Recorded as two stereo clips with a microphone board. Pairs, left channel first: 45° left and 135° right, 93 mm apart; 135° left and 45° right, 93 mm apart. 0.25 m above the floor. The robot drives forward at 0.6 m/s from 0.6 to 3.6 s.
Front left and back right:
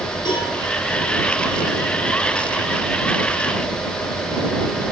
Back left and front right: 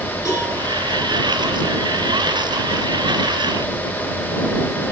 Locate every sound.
0.2 s a cowbell: 85° left, 8.5 m